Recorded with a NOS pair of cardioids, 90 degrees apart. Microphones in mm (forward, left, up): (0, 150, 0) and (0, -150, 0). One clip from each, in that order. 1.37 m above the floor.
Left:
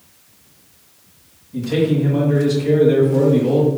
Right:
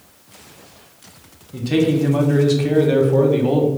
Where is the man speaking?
35° right, 1.0 m.